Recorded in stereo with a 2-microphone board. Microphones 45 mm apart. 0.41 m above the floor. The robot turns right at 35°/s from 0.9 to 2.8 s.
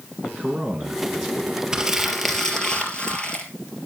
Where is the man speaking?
35° right (ahead or behind), 4 m; by 1.6 s 10° right (ahead or behind), 4 m.